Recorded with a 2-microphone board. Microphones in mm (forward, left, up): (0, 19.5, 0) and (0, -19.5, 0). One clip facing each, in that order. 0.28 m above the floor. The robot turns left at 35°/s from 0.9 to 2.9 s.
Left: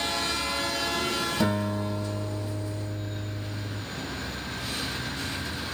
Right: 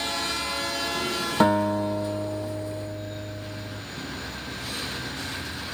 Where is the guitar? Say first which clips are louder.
Right 11 dB; 120° right, 5 m; by 3.8 s 175° right, 5 m.